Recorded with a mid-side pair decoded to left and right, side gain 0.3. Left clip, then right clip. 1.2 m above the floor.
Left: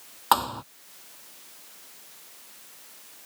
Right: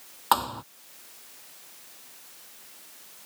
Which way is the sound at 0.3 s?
15° left.